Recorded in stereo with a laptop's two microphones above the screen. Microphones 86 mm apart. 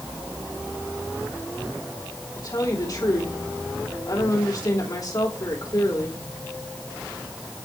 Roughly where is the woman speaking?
Left.